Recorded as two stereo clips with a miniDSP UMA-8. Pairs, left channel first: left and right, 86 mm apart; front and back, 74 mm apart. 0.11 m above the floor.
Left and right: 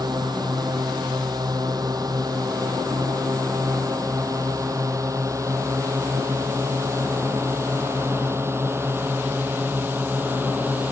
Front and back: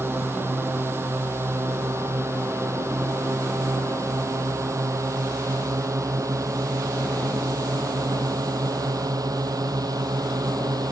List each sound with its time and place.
0.0 s a drone: 125° right; by 10.9 s 155° right